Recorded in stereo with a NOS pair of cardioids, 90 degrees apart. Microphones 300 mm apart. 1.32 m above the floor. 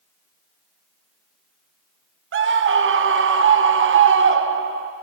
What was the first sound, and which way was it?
A scream, 45° right.